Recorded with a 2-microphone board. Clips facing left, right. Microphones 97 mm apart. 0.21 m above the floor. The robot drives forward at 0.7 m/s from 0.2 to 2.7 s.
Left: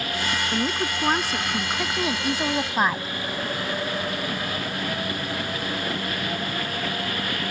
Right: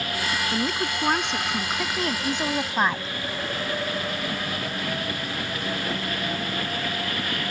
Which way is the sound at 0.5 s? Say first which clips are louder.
Left 1 dB; 5° left (ahead or behind).